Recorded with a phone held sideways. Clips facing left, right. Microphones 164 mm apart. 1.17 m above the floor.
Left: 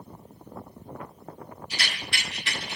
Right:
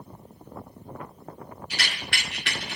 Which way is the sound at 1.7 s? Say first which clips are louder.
Right 1 dB; 70° right (ahead or behind).